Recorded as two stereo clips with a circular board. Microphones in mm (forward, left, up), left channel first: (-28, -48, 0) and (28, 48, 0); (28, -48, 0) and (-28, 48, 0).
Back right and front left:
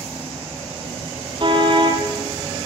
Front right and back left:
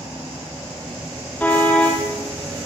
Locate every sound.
1.4 s a car horn: 15° left, 4.5 m